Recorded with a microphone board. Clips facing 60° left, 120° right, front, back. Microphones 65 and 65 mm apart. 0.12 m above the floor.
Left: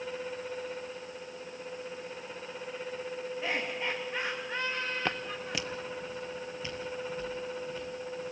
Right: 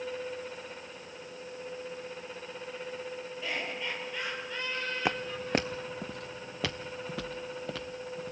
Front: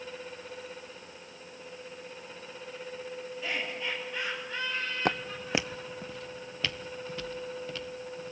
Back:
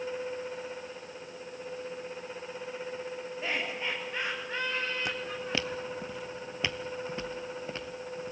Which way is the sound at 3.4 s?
120° left.